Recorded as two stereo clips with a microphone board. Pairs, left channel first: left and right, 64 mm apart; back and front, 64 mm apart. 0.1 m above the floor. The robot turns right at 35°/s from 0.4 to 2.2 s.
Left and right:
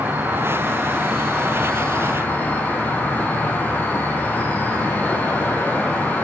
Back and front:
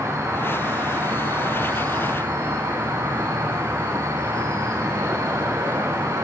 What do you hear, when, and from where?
0.0 s an insect: 30° right, 2.5 m; by 6.2 s 30° left, 2.5 m